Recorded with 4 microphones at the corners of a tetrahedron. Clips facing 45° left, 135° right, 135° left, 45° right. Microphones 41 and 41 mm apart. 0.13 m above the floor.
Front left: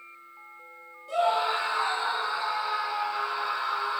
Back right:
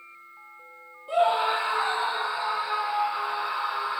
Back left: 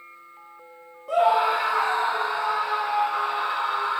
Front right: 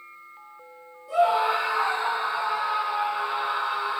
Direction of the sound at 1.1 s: 160° left.